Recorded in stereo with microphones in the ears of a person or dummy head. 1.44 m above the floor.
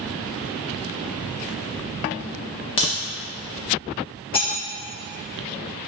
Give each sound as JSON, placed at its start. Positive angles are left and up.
{"t": 2.8, "sound": "a crack", "side_deg": 35, "distance_m": 0.9}
{"t": 4.3, "sound": "cutlery clinking", "side_deg": 35, "distance_m": 1.8}